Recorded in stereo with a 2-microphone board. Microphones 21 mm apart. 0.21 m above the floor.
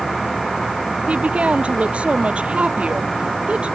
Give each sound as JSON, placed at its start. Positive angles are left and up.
{"t": 1.1, "sound": "a woman speaking", "side_deg": -75}